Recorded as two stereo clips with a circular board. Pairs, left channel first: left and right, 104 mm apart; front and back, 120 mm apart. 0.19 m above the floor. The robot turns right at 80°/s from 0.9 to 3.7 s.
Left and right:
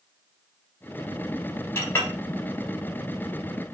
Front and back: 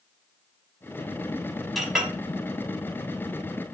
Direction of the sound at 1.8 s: 90° left.